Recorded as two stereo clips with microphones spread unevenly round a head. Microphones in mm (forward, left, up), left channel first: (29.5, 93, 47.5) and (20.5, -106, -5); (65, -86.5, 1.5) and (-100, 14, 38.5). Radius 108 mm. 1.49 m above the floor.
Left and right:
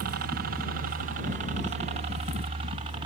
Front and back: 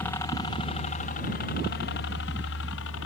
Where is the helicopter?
105° right; by 3.1 s 30° right.